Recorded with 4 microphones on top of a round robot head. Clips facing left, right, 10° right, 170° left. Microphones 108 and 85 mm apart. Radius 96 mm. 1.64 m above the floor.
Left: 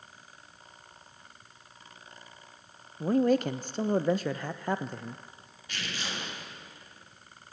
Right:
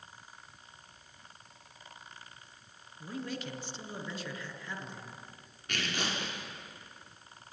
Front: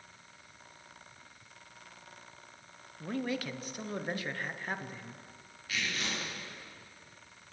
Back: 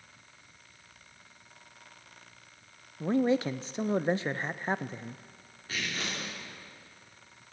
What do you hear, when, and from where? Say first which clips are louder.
3.0 s a man speaking: left 15 dB, back 9 dB; 115° left, 0.5 m
5.7 s tearing paper: right 3 dB, even; 125° right, 5 m